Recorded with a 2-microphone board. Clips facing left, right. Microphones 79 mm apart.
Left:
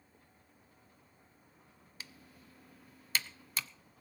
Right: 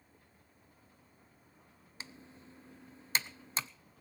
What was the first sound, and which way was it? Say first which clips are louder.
Typing on a keyboard: right 3 dB; 30° right (ahead or behind).